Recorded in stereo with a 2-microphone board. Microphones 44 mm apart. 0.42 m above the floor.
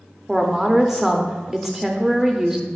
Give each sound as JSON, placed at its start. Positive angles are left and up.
{"t": 0.3, "sound": "a woman speaking", "side_deg": -10, "distance_m": 0.8}